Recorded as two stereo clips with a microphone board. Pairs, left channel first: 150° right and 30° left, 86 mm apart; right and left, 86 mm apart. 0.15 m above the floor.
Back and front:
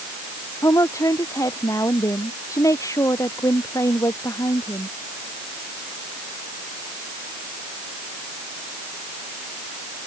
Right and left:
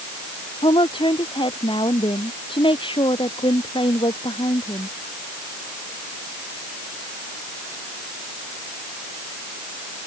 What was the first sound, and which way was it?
A woman speaking, 100° right.